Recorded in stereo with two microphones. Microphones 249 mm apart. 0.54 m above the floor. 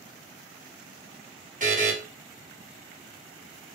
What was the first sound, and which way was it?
A buzzer, 30° right (ahead or behind).